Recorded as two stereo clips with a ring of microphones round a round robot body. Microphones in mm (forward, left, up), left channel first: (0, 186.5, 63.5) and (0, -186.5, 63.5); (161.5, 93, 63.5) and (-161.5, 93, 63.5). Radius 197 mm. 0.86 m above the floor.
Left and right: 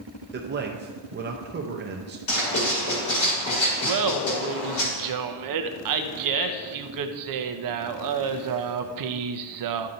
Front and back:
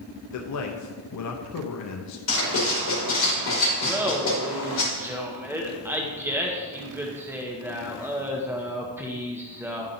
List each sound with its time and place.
0.3 s a man speaking: 30° right, 0.6 m
2.3 s writing: 40° left, 2.5 m
3.8 s laughter: 100° right, 0.7 m